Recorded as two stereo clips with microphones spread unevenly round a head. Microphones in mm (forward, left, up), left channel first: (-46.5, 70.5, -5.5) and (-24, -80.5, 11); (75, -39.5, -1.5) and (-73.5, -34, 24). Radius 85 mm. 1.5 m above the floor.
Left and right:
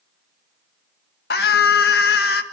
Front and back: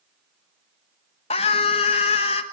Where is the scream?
60° left, 1.4 m.